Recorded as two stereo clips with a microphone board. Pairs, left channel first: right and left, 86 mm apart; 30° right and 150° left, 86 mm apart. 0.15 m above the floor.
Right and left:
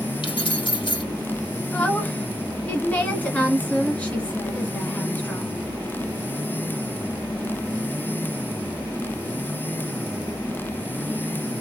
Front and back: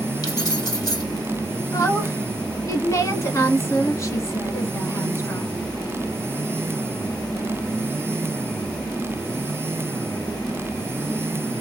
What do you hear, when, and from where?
0.2 s keys jangling: 70° right, 2.5 m
1.7 s a woman speaking: 30° right, 1.2 m